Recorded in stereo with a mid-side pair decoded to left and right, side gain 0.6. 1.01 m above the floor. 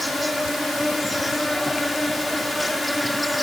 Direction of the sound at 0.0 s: 5° left.